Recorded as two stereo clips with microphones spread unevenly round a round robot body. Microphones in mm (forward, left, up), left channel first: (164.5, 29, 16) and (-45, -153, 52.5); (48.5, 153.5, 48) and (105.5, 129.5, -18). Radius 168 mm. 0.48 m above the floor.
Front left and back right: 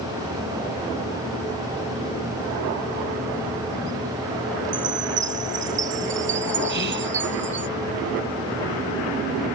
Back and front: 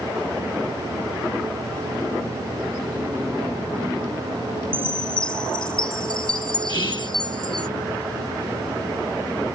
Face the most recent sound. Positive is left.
turn(degrees=160)